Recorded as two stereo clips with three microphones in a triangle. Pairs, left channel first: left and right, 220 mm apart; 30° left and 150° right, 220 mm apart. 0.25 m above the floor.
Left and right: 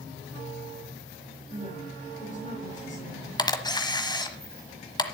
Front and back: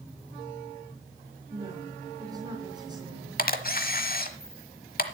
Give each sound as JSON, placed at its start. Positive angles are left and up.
{"t": 1.5, "sound": "a woman speaking", "azimuth_deg": 140, "distance_m": 3.5}
{"t": 3.4, "sound": "a camera shutter", "azimuth_deg": 30, "distance_m": 1.2}